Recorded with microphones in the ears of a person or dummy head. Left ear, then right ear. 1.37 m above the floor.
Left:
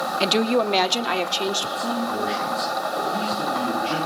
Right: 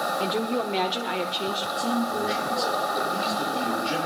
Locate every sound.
0.2 s a woman speaking: 60° left (ahead or behind), 0.9 m; by 1.7 s 75° left (ahead or behind), 1.6 m
1.8 s a man speaking: 20° left (ahead or behind), 7 m